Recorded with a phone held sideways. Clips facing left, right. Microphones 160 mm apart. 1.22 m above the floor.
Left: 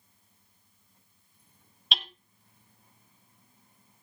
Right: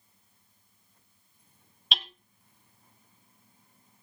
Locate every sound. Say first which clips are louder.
1.9 s hammering: even; centre (ahead or behind), 1.0 m